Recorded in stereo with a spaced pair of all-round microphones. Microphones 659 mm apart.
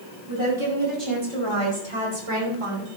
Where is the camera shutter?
No camera shutter in this recording.